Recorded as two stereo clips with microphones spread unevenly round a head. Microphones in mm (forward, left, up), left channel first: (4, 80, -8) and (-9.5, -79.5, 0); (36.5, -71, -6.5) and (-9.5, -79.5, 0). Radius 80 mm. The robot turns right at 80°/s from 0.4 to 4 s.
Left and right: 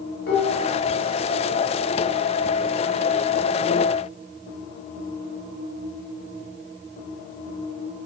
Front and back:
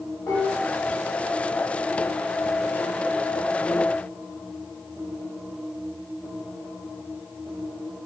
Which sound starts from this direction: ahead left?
Dishes clattering, at 0.3 s.